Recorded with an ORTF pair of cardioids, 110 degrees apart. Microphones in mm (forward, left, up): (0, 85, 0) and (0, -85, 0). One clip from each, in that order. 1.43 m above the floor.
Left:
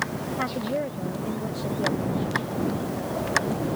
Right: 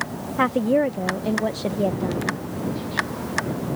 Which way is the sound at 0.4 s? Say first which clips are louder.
Right 9 dB; 50° right.